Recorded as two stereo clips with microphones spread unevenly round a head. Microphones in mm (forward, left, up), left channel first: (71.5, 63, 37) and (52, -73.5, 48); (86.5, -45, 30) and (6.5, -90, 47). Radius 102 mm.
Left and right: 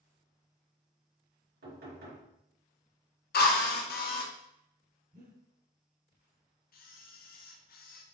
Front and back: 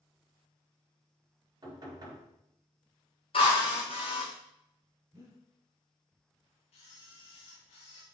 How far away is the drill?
About 1.1 m.